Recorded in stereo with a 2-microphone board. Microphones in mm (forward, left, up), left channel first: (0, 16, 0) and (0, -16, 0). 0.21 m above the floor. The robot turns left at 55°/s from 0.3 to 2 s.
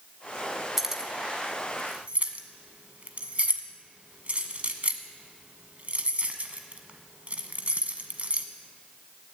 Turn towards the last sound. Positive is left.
turn(degrees=-45)  # may be behind; listen again after turning